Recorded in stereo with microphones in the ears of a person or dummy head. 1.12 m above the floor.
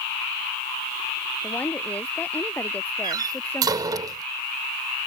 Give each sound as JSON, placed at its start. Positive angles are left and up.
{"t": 1.4, "sound": "a woman speaking", "side_deg": 10}
{"t": 3.0, "sound": "a door slam", "side_deg": -20}